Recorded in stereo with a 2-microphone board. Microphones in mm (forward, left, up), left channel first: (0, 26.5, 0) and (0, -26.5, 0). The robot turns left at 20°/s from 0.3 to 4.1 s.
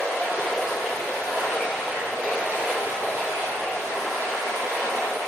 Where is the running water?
10° left, 1.2 m; by 5.3 s 65° right, 1.2 m.